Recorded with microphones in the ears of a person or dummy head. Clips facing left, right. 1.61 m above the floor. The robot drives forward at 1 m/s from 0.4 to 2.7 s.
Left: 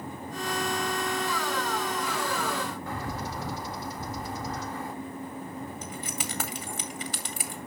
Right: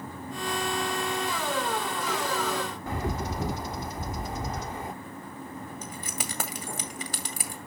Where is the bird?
15° right (ahead or behind), 0.7 m.